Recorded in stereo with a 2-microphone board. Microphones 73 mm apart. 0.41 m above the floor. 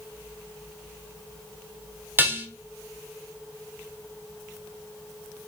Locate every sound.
2.2 s dishes clattering: 30° right (ahead or behind), 0.7 m